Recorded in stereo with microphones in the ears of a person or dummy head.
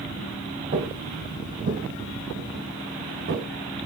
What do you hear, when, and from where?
0.7 s footsteps: 40° right (ahead or behind), 1.9 m; by 3.4 s 60° right (ahead or behind), 4 m